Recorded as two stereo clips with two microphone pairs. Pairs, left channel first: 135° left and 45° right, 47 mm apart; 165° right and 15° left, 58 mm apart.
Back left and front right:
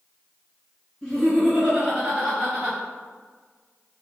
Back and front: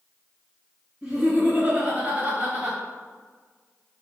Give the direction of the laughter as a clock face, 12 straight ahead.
11 o'clock.